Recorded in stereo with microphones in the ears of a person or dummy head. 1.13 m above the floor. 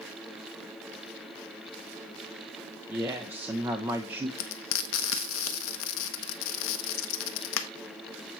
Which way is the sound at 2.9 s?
10° right (ahead or behind).